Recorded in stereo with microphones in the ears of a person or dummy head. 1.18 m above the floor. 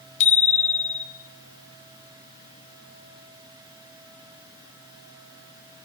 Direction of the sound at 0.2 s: 40° left (ahead or behind).